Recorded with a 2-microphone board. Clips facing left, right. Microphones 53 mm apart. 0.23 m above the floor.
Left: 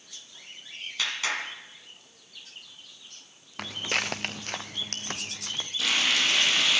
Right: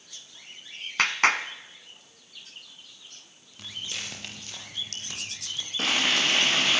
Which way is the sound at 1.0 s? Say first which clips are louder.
Right 8 dB; 55° right (ahead or behind).